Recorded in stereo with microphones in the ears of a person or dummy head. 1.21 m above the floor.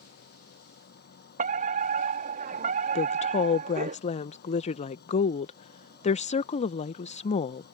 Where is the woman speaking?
35° left (ahead or behind).